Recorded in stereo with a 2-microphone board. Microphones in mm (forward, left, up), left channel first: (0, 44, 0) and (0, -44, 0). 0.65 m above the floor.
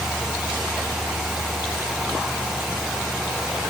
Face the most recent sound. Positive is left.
No sound to turn to.